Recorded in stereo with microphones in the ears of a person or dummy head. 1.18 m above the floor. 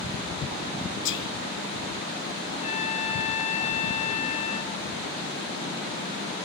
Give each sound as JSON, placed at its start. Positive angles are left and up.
{"t": 1.1, "sound": "whispering", "side_deg": 60, "distance_m": 0.6}
{"t": 2.5, "sound": "a trumpet", "side_deg": 40, "distance_m": 1.2}